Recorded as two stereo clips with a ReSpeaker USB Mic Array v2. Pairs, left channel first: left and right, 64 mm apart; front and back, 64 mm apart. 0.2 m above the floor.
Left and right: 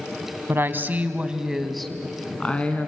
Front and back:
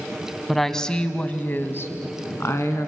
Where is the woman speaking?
90° right, 1.4 m; by 2.9 s 30° left, 2 m.